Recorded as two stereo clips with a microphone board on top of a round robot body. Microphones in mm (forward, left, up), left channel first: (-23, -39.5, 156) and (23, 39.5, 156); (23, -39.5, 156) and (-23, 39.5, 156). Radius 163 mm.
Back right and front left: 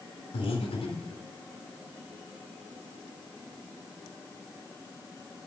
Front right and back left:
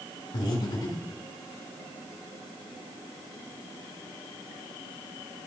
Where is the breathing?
100° right, 1.8 m.